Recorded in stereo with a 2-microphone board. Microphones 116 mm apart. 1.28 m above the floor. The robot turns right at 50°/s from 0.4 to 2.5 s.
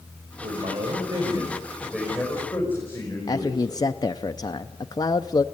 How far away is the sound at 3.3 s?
About 0.5 m.